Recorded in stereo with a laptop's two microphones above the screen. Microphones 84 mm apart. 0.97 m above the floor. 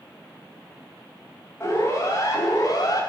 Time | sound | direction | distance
1.6 | a siren | 30° left (ahead or behind) | 4.5 m